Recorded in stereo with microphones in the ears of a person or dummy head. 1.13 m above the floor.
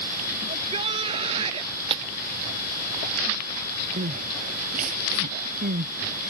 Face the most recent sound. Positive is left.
turn(degrees=-50)  # may be behind; listen again after turning